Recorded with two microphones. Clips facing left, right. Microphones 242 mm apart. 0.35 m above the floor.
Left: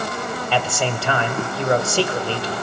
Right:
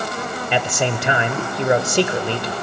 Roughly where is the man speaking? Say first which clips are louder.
Right 2 dB; centre.